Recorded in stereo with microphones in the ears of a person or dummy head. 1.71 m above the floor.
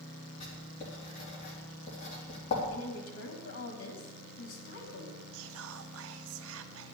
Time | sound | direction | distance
0.4 | writing | 45° left (ahead or behind) | 3.5 m
2.7 | a woman speaking | 75° left (ahead or behind) | 3 m
5.3 | whispering | 80° right | 0.9 m